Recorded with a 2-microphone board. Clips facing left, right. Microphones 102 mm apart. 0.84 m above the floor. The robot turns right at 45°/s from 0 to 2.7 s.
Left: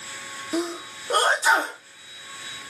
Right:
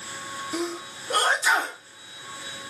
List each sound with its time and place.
0.5 s a sneeze: 20° left (ahead or behind), 0.6 m; by 1.8 s 30° left (ahead or behind), 0.6 m